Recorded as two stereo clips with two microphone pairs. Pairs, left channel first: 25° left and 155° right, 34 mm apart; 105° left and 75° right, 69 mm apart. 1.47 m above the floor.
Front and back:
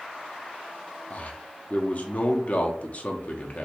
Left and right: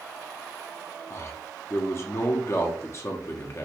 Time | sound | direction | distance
1.1 | a man speaking | 65° left | 0.7 m